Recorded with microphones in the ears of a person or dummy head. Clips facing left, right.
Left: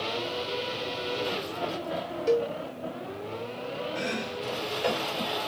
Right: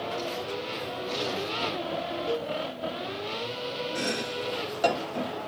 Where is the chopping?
85° right, 3 m.